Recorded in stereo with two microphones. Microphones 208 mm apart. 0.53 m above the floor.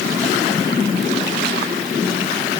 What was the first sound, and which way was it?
Only background noise.